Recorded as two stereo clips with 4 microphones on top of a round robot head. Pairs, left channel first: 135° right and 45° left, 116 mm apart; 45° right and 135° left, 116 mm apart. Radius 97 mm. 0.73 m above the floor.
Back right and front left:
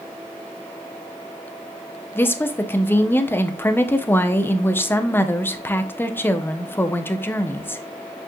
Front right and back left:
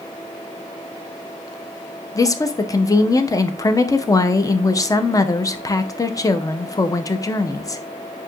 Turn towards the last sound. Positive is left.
turn(degrees=-75)